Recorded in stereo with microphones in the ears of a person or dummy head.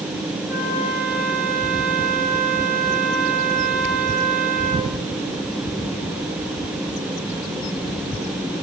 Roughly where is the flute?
Centre.